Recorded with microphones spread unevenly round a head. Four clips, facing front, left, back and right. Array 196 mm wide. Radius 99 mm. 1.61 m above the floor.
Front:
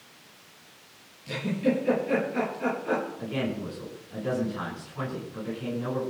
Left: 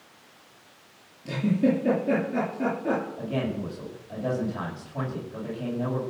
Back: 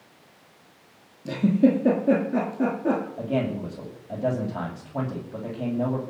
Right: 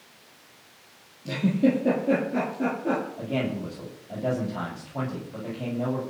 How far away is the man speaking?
About 8.5 m.